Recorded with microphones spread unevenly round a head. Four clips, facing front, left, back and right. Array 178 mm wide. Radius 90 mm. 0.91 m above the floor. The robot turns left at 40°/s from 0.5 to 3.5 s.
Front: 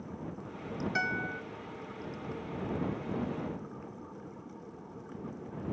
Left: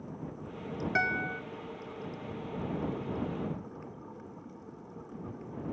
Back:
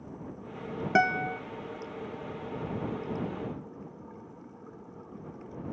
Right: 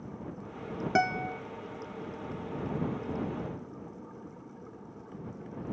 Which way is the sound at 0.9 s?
150° right.